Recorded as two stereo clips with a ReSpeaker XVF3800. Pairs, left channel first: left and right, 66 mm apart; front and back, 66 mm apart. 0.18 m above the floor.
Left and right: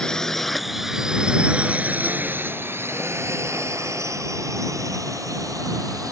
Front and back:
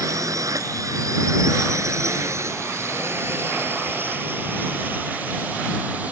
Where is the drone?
165° left; by 6.1 s 115° right.